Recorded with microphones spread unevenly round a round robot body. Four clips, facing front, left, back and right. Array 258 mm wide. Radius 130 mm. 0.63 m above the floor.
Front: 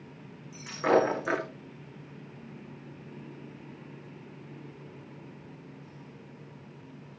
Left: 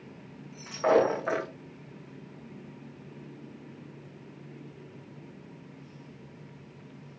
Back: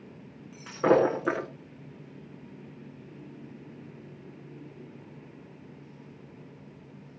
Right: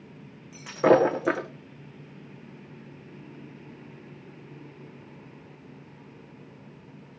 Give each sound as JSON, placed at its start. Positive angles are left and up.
{"t": 0.5, "sound": "breaking glass", "azimuth_deg": -125, "distance_m": 7.5}